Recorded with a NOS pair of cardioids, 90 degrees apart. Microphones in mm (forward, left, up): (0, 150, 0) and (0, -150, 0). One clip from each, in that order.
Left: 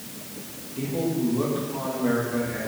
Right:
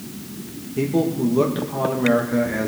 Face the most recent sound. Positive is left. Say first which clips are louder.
# right 6 dB
turn(degrees=-65)